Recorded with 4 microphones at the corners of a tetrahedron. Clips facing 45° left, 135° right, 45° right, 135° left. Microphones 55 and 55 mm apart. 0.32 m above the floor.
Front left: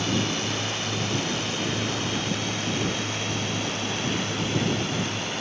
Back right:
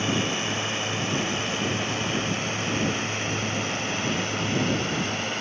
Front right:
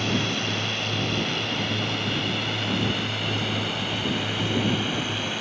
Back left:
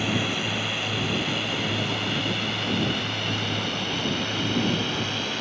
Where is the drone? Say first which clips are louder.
Even, even; 155° right; by 5.4 s 120° right.